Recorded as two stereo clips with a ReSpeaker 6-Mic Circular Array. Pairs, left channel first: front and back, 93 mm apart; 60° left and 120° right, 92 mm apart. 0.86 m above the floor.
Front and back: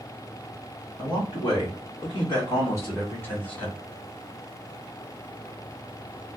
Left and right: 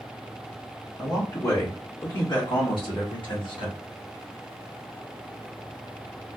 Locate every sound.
1.0 s a man speaking: 10° left, 2.0 m; by 3.8 s 75° left, 1.6 m